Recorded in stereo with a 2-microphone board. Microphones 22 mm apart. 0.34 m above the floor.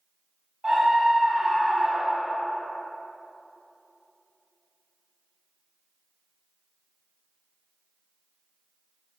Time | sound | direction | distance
0.6 | a scream | 5° left (ahead or behind) | 2.5 m